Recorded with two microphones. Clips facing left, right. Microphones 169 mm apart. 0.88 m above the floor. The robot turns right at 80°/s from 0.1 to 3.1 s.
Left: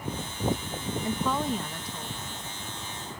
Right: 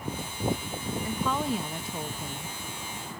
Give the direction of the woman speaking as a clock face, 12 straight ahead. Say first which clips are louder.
Left 1 dB; 7 o'clock.